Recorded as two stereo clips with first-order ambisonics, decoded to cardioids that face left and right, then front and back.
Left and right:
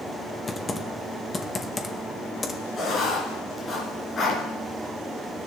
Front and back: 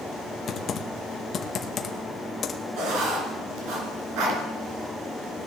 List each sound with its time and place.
0.5 s typing on a keyboard: 25° left, 0.8 m
2.8 s writing: 160° left, 3 m